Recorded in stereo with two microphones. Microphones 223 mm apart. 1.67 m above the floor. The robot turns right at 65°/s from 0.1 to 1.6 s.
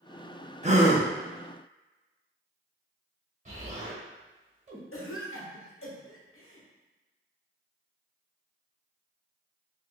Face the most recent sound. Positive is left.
turn(degrees=70)  # may be behind; listen again after turning